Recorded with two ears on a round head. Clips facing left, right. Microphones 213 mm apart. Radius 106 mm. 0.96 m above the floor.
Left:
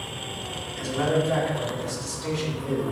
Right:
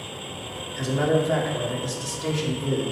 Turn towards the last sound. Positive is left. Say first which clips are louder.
# right 2 dB
turn(degrees=-60)  # may be behind; listen again after turning